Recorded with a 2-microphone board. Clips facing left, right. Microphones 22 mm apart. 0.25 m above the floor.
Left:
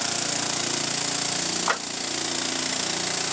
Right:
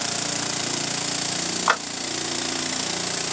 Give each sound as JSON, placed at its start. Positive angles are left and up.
{"t": 1.7, "sound": "a clap", "side_deg": -30, "distance_m": 2.0}